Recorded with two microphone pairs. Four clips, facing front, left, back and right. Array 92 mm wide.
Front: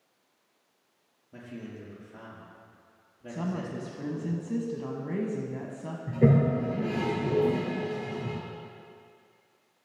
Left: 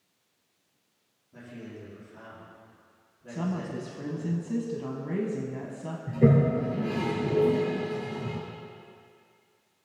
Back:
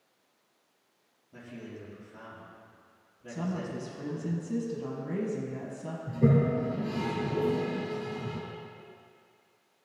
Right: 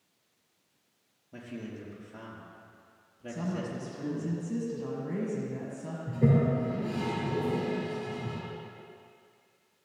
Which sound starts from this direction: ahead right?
A man speaking, at 1.3 s.